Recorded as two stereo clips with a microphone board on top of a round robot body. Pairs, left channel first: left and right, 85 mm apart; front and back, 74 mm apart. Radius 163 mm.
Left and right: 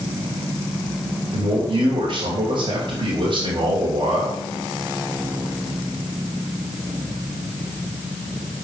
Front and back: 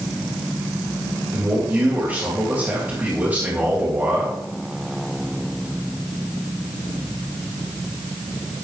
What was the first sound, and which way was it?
A man speaking, 115° right.